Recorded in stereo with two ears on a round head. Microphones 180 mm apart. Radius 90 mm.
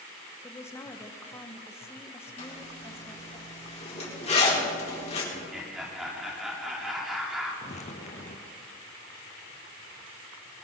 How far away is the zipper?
About 4 m.